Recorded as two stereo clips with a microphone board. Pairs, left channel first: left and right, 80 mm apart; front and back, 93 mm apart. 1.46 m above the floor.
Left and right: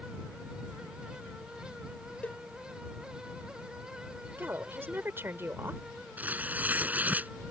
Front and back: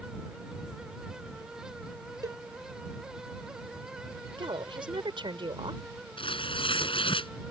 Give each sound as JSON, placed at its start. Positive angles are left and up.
{"t": 2.2, "sound": "a cowbell", "azimuth_deg": 155}
{"t": 4.4, "sound": "a woman speaking", "azimuth_deg": -150}
{"t": 6.2, "sound": "tearing paper", "azimuth_deg": -20}